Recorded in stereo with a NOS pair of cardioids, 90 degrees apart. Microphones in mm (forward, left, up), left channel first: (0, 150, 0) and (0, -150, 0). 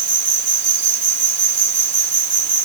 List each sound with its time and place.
0.0 s an insect: 40° right